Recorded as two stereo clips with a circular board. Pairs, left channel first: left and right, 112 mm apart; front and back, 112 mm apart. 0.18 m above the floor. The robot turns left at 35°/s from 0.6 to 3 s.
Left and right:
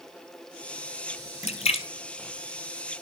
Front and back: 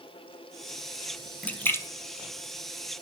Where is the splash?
80° left, 0.7 m; by 1.9 s 65° left, 0.7 m.